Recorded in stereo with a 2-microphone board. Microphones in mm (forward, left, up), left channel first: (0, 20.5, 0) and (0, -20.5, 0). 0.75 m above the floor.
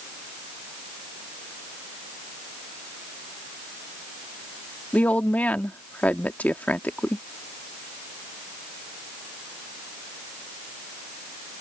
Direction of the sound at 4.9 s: 40° left (ahead or behind).